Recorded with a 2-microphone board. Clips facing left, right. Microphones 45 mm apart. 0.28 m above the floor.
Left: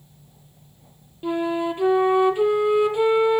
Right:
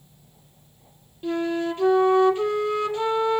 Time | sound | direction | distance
1.2 | a flute | 15° left (ahead or behind) | 1.7 m